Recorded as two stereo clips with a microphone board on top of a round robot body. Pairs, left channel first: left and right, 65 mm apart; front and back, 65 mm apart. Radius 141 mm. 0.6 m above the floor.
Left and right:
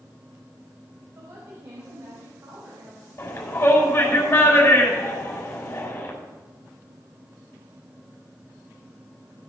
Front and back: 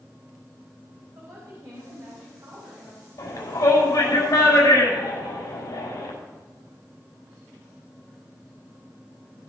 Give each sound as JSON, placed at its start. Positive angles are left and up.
{"t": 1.1, "sound": "a woman speaking", "azimuth_deg": -145, "distance_m": 4.5}
{"t": 3.2, "sound": "a shout", "azimuth_deg": 40, "distance_m": 6.0}